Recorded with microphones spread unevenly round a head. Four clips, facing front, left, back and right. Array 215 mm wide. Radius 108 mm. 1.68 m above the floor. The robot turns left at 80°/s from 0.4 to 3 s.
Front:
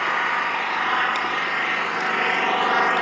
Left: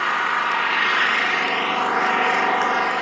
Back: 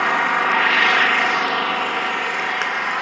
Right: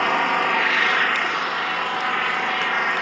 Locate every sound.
0.0 s an engine running: 130° right, 1.7 m; by 3.0 s 20° left, 1.7 m